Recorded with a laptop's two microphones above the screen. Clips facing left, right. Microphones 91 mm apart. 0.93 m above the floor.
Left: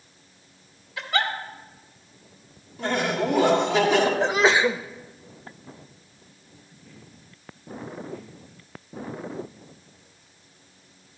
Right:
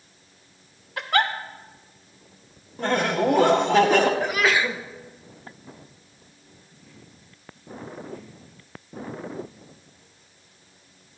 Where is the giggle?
50° right (ahead or behind), 1.0 m.